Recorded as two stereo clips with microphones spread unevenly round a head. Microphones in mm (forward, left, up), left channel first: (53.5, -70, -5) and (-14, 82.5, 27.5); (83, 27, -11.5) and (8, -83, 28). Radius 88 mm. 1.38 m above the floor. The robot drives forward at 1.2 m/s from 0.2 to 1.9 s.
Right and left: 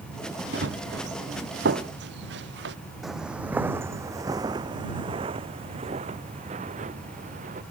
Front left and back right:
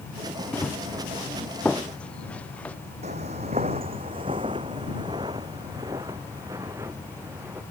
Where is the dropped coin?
No dropped coin in this recording.